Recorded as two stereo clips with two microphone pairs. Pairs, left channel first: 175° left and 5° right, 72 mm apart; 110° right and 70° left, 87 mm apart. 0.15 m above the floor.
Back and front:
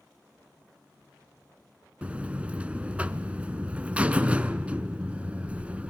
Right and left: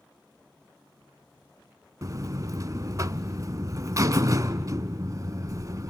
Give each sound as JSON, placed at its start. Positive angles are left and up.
{"t": 2.0, "sound": "a buzzer", "azimuth_deg": 55, "distance_m": 0.5}